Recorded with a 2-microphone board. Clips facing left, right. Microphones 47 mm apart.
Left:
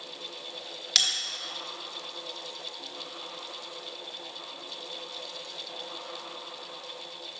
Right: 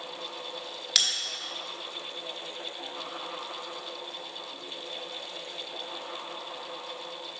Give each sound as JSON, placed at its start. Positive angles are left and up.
{"t": 0.9, "sound": "a bell", "side_deg": 0, "distance_m": 1.2}